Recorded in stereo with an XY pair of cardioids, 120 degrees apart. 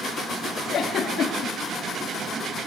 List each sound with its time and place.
0.7 s a giggle: 55° left, 1.7 m